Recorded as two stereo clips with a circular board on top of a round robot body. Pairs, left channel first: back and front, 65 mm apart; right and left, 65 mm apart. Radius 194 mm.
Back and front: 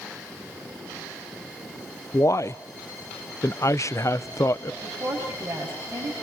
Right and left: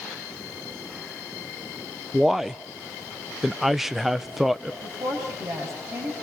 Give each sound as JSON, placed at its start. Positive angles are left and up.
{"t": 2.1, "sound": "a man speaking", "azimuth_deg": 175, "distance_m": 0.9}
{"t": 4.8, "sound": "a woman speaking", "azimuth_deg": 60, "distance_m": 7.0}